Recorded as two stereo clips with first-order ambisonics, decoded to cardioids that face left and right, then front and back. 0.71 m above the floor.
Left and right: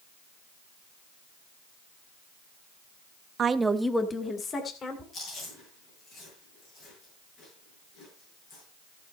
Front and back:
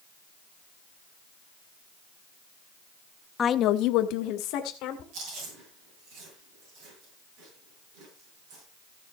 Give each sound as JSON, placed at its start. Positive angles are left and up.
{"t": 3.4, "sound": "a woman speaking", "azimuth_deg": -60, "distance_m": 0.5}
{"t": 5.1, "sound": "chewing", "azimuth_deg": 140, "distance_m": 7.0}